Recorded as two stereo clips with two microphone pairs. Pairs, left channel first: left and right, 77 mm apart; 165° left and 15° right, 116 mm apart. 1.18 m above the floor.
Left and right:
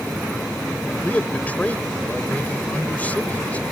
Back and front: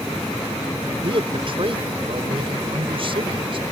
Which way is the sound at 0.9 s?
20° left.